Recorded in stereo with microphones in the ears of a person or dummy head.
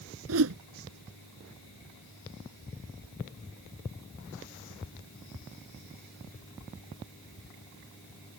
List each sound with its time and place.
0.3 s a whoosh: 80° right